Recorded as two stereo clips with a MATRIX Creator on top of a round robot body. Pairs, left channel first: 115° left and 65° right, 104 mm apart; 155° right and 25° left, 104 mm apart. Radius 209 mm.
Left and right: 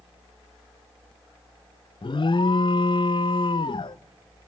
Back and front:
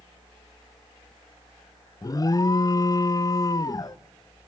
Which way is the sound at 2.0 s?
150° left.